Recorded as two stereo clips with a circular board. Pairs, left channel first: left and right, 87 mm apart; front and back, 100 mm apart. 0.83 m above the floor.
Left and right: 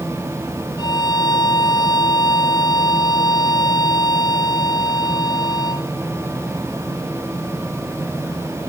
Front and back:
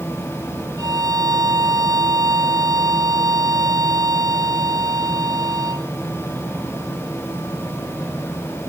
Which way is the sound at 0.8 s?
130° left.